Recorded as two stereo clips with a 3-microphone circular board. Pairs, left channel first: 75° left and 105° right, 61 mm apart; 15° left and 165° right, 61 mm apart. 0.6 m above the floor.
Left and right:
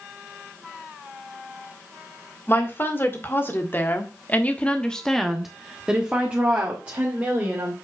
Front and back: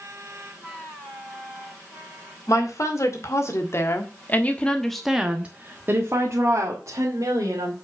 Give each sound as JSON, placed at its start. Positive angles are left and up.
{"t": 2.5, "sound": "a woman speaking", "azimuth_deg": 25, "distance_m": 2.5}